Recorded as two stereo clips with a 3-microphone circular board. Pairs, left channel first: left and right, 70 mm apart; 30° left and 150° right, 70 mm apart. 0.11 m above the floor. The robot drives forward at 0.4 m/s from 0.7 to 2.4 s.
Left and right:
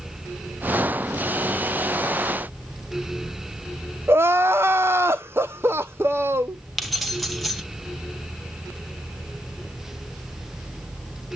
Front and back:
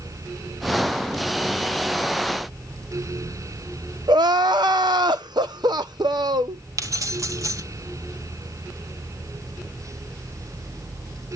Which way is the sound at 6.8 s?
Straight behind.